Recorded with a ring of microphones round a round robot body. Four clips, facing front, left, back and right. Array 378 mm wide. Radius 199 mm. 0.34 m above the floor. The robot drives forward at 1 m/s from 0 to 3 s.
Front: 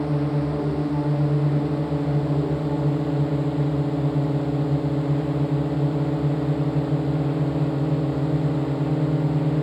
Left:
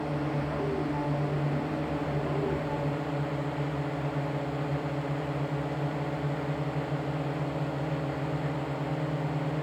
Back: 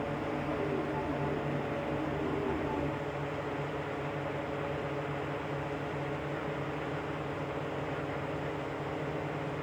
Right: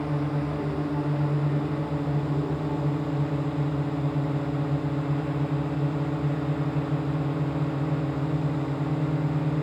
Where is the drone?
15° right; by 9.6 s 20° right.